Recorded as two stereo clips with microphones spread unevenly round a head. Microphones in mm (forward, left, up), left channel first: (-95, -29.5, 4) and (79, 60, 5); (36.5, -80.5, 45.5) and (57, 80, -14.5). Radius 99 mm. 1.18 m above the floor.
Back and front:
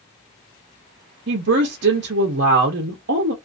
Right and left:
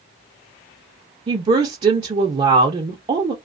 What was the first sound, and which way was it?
A woman speaking, 50° left.